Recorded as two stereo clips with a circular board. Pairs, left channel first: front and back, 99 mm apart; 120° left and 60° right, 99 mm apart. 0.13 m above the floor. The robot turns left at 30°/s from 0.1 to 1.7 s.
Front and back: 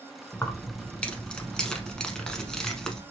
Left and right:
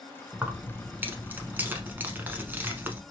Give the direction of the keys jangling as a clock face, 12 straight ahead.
1 o'clock.